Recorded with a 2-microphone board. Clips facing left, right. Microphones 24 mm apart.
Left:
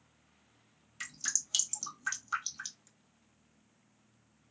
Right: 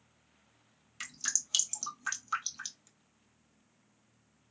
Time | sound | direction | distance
1.0 | dripping | 10° right (ahead or behind) | 1.2 m